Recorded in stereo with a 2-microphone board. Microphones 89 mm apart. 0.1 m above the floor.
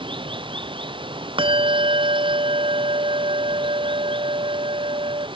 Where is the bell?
80° right.